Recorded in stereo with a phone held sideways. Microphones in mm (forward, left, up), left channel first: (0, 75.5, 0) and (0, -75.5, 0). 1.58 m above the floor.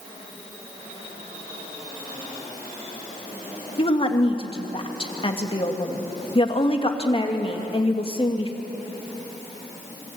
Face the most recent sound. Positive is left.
turn(degrees=35)  # may be behind; listen again after turning